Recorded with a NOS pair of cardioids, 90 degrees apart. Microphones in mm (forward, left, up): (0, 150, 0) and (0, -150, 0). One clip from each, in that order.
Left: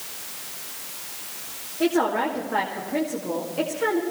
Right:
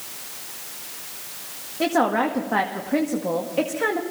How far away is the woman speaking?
About 2 m.